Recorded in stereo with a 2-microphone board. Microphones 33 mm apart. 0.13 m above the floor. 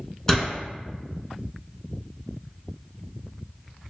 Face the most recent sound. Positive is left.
turn(degrees=20)  # may be behind; listen again after turning